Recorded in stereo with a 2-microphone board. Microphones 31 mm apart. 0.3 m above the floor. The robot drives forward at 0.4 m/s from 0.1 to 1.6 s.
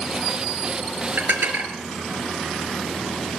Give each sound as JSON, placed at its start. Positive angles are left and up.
{"t": 1.2, "sound": "dishes clattering", "side_deg": -80, "distance_m": 4.0}